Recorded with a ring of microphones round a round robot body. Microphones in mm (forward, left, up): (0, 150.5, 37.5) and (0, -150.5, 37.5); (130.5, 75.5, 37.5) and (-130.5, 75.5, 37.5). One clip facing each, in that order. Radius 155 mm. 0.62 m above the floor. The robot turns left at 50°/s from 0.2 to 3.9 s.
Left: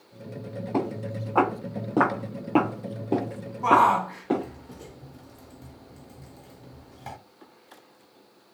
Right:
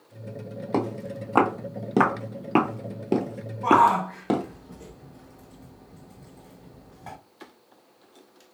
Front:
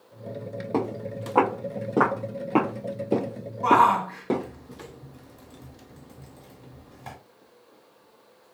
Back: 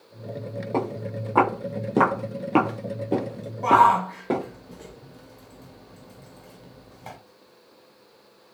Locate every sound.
0.7 s footsteps: 80° right, 1.4 m; by 4.4 s 75° right, 1.2 m
3.6 s a shout: 80° left, 2.0 m; by 7.2 s 65° left, 2.0 m